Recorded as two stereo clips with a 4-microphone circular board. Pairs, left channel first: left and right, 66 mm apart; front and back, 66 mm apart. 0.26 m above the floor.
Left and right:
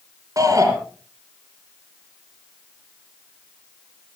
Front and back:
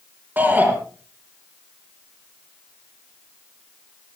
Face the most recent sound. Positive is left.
turn(degrees=-125)